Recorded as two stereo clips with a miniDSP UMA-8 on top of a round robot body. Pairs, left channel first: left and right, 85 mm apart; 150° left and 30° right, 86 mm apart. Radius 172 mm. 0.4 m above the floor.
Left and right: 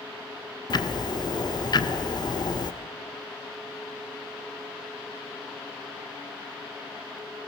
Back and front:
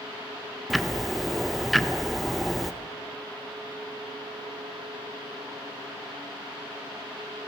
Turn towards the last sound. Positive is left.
turn(degrees=60)